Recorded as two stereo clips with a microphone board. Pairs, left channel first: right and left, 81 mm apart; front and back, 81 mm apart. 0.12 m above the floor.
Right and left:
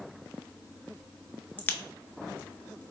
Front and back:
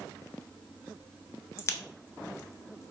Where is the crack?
30° right, 0.5 m.